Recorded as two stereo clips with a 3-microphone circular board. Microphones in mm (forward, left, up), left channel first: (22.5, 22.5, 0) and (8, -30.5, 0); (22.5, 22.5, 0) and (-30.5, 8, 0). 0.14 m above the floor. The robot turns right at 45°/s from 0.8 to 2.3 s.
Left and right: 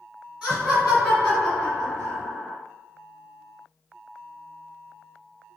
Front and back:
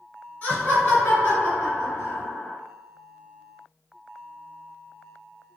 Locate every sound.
0.4 s laughter: 40° right, 1.9 m; by 2.6 s 25° left, 1.9 m